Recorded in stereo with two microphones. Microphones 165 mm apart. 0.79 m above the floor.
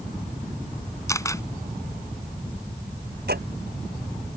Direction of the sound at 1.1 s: 20° left (ahead or behind).